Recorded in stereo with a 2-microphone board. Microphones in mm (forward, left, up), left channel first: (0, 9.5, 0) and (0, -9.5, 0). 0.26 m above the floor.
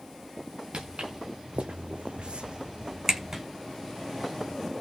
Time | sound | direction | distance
0.7 | footsteps | 65° right (ahead or behind) | 1.5 m